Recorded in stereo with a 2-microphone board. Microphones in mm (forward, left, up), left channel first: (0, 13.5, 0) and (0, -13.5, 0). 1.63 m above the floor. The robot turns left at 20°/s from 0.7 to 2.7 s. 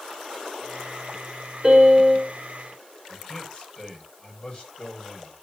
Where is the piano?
15° right (ahead or behind), 3.5 m; by 2.3 s centre (ahead or behind), 3.5 m.